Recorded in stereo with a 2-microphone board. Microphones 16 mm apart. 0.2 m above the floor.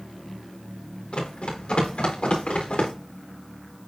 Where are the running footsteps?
75° left (ahead or behind), 4 m; by 2.9 s 90° left, 4 m.